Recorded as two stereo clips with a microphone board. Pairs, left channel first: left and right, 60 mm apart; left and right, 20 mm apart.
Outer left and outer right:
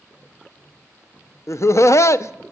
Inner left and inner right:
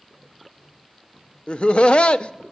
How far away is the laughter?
About 0.5 m.